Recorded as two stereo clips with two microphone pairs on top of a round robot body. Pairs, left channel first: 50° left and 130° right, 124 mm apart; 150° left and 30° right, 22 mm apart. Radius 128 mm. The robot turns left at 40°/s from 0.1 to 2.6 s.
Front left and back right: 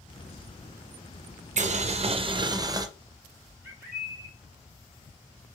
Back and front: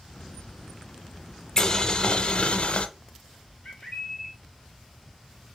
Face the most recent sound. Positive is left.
turn(degrees=155)